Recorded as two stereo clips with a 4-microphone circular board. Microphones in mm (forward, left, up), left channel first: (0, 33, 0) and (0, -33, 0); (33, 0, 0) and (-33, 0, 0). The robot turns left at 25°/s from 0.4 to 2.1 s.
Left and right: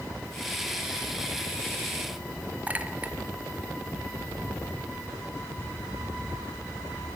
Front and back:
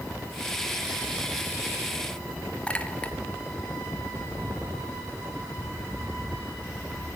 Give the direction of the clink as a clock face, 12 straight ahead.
2 o'clock.